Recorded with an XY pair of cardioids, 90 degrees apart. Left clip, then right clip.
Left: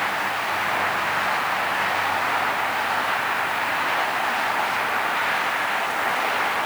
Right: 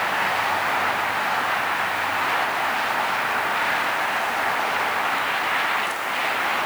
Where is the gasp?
I don't hear a gasp.